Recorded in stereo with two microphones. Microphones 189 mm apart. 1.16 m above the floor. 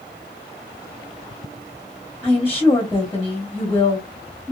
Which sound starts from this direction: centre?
A woman speaking, at 2.2 s.